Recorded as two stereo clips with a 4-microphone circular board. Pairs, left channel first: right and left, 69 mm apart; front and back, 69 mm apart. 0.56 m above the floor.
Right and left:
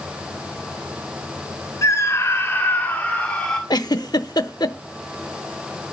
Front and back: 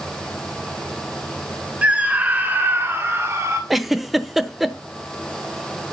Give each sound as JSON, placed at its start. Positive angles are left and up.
{"t": 1.8, "sound": "a scream", "azimuth_deg": -115, "distance_m": 1.8}
{"t": 3.7, "sound": "a giggle", "azimuth_deg": -95, "distance_m": 0.8}